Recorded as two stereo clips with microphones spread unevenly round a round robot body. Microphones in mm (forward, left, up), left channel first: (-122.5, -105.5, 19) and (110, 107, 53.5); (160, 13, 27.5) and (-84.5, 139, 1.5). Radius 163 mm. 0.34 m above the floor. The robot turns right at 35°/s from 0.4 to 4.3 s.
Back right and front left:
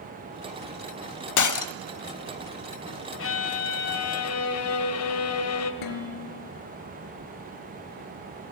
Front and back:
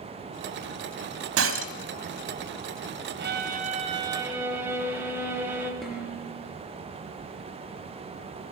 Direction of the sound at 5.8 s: 115° right.